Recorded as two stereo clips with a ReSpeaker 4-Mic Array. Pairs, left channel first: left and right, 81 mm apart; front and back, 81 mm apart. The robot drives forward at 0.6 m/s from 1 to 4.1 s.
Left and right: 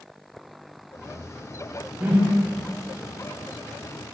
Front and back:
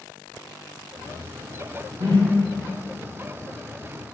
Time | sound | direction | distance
2.0 | a whoosh | 165° right | 1.7 m